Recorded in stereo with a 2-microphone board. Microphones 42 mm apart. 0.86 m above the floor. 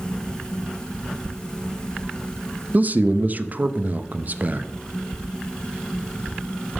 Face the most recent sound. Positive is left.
turn(degrees=-40)  # may be behind; listen again after turning